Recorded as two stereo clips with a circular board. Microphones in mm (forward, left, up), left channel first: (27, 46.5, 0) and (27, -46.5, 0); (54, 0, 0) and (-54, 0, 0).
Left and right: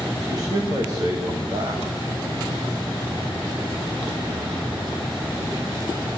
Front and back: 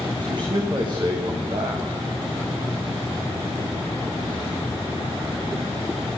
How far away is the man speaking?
About 9.5 m.